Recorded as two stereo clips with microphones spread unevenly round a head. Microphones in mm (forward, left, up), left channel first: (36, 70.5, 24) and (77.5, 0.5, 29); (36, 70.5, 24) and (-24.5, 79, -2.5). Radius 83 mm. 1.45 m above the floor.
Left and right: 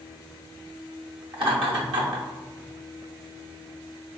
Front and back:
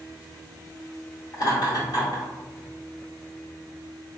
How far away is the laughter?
About 1.1 m.